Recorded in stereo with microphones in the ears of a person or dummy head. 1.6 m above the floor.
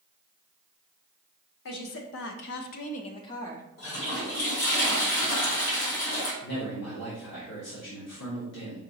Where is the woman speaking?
65° left (ahead or behind), 0.8 m; by 3.7 s 15° left (ahead or behind), 0.8 m.